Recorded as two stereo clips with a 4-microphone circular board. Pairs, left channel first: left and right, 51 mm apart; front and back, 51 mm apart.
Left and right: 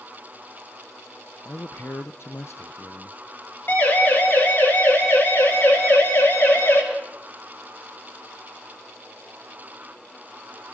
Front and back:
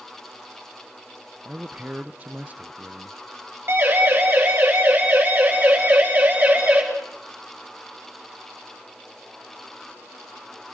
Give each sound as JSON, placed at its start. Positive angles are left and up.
{"t": 1.4, "sound": "a man speaking", "azimuth_deg": 120, "distance_m": 0.6}
{"t": 3.7, "sound": "a siren", "azimuth_deg": 140, "distance_m": 5.5}